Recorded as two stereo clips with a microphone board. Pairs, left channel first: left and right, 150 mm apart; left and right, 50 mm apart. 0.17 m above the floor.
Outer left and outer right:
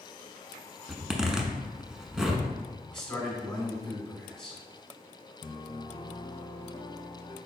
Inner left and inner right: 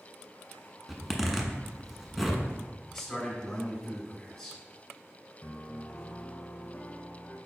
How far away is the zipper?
About 0.6 m.